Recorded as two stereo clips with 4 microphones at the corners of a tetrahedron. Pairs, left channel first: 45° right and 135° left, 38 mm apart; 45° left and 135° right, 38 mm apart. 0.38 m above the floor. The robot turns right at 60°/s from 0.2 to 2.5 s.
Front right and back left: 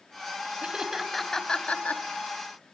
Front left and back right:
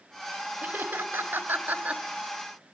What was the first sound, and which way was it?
Laughter, 165° right.